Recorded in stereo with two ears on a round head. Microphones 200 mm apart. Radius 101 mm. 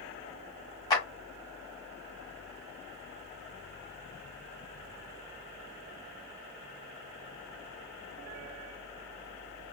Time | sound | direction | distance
0.9 | a clap | 15° left (ahead or behind) | 1.2 m